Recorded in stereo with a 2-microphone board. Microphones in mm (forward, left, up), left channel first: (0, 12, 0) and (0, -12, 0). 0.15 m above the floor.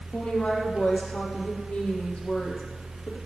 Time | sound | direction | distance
0.1 | a woman speaking | 75° left (ahead or behind) | 5.5 m